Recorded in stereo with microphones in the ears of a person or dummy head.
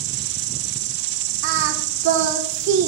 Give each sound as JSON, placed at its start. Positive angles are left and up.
{"t": 0.0, "sound": "an insect", "side_deg": -80, "distance_m": 3.5}
{"t": 1.4, "sound": "singing", "side_deg": -55, "distance_m": 2.0}